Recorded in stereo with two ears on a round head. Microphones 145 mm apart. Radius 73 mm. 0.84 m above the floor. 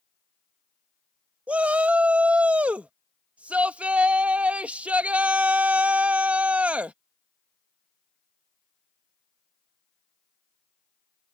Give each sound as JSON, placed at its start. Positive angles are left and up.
{"t": 1.5, "sound": "a shout", "side_deg": -10}